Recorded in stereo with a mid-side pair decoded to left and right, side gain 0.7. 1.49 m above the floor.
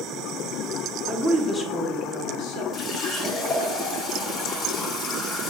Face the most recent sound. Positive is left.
turn(degrees=40)